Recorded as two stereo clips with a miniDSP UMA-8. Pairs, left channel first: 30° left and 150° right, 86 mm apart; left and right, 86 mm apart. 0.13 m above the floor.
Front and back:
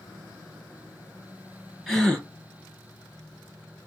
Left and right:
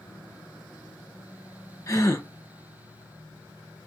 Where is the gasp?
120° left, 1.2 m.